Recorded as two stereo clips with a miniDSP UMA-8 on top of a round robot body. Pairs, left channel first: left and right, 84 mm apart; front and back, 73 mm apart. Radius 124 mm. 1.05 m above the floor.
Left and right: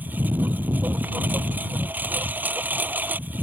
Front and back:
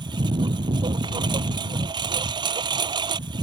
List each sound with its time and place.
0.0 s a lawn mower: 160° right